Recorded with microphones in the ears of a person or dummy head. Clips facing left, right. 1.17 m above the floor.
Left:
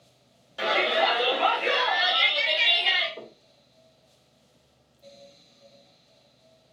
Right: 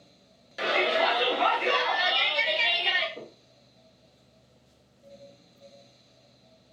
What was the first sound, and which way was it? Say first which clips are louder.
A shout: left 1 dB; 25° right (ahead or behind).